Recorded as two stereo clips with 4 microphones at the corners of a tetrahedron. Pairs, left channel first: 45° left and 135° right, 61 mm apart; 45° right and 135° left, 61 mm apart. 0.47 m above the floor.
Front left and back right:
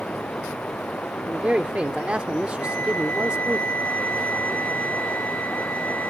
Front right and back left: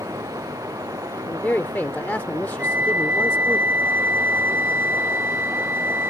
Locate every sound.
0.0 s running water: 115° left
1.3 s a man speaking: 80° right
2.6 s a flute: 95° left